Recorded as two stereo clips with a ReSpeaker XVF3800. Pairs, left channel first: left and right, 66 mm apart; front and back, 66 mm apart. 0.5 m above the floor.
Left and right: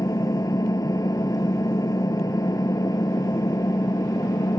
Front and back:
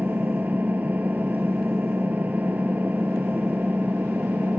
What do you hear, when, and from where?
0.0 s an engine running: 115° left